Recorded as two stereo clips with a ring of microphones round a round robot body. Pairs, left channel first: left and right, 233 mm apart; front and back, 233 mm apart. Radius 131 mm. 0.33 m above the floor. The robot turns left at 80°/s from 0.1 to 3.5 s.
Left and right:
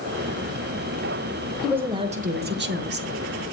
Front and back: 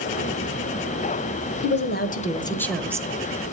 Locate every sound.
1.6 s a woman speaking: straight ahead, 1.4 m; by 3.1 s 115° right, 1.4 m